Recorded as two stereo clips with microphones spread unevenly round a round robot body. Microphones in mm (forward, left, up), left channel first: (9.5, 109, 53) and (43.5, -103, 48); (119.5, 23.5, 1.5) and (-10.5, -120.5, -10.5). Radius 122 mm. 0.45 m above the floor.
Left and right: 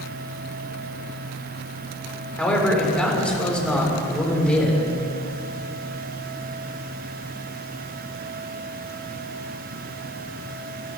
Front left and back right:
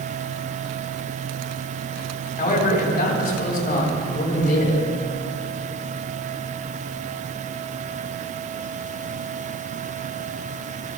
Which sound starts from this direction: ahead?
A man speaking, at 2.4 s.